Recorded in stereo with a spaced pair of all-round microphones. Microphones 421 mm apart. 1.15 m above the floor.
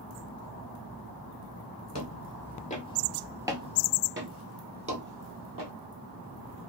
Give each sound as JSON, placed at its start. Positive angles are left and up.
{"t": 1.9, "sound": "footsteps", "side_deg": 40, "distance_m": 1.4}